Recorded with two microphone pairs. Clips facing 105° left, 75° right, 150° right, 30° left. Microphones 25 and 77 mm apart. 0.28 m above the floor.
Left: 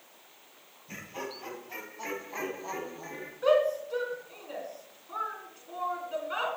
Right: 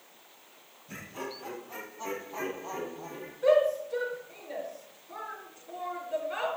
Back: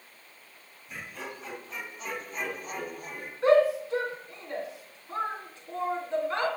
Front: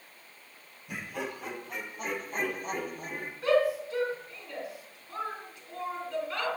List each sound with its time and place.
0.9 s laughter: 50° left, 7.5 m; by 3.3 s 75° left, 5 m
3.4 s a shout: 150° left, 3 m